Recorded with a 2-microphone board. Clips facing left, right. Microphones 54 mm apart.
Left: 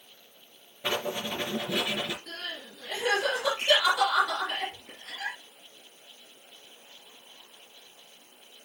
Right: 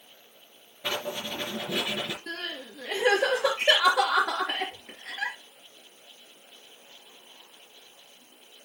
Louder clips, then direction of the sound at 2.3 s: Right 3 dB; 75° right (ahead or behind).